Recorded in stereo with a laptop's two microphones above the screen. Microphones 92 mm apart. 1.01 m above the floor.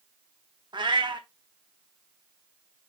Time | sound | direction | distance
0.7 | a cat meowing | 55° right (ahead or behind) | 0.7 m